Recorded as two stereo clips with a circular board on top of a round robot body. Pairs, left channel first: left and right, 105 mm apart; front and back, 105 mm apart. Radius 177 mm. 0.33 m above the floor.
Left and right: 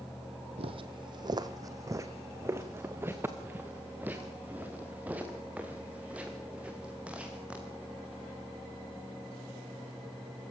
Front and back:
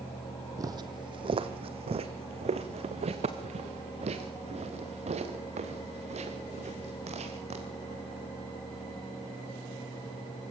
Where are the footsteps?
120° right, 0.8 m; by 8.2 s 170° right, 5 m.